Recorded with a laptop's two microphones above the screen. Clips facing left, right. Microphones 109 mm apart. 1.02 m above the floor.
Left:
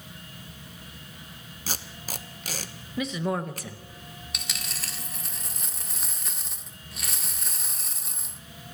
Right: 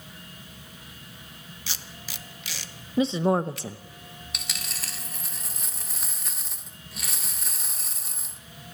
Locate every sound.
1.7 s tape being pulled: 45° left (ahead or behind), 0.8 m
3.0 s a woman speaking: 30° right (ahead or behind), 0.6 m
4.3 s a dropped coin: centre (ahead or behind), 1.0 m